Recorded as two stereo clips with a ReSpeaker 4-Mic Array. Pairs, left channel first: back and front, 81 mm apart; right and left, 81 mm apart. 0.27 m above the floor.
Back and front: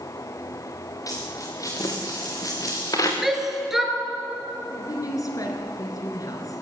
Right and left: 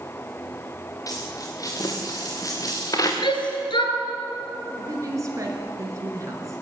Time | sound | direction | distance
1.1 | a dropped coin | 135° right | 5 m
3.2 | a shout | 85° right | 4.5 m
4.8 | a woman speaking | 140° left | 5 m